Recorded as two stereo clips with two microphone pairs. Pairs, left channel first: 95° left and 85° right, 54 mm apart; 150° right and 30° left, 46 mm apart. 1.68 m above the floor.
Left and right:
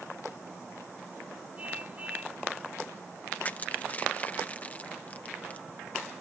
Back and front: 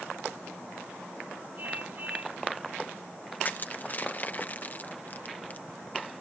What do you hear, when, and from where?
1.6 s a car horn: 20° right
3.4 s crushing: 160° left